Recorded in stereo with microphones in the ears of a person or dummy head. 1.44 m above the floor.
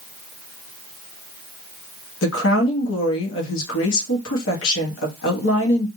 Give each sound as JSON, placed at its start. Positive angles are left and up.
{"t": 2.2, "sound": "a woman speaking", "side_deg": 75, "distance_m": 1.1}